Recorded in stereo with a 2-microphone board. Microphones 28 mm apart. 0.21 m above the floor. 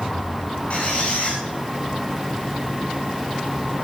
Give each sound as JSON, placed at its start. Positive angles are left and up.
{"t": 0.7, "sound": "a squeak", "side_deg": 45, "distance_m": 8.0}